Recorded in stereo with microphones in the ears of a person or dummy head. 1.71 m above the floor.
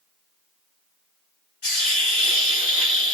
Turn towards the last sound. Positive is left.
turn(degrees=40)  # may be behind; listen again after turning